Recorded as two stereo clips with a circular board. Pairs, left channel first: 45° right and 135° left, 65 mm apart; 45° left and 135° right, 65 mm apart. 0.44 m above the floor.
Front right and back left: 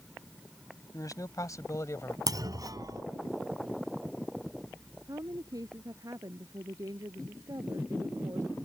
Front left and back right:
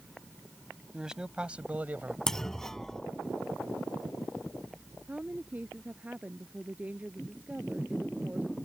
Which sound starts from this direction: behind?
A woman speaking, at 5.1 s.